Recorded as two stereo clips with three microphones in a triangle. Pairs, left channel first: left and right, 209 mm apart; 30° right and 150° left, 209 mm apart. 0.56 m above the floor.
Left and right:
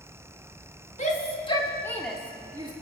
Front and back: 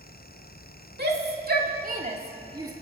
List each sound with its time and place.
1.0 s a shout: 135° left, 1.9 m; by 2.7 s 145° right, 1.4 m